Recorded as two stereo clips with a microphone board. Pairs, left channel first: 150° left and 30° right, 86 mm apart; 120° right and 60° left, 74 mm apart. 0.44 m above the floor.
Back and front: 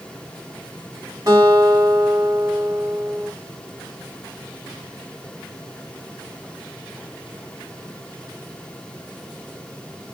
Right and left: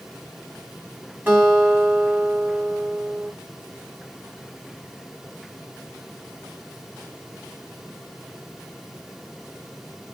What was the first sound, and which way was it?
A guitar, straight ahead.